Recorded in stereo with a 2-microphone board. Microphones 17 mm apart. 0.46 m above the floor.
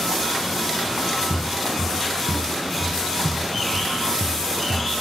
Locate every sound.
1.3 s footsteps: 75° left (ahead or behind), 2 m; by 4.9 s 25° left (ahead or behind), 2 m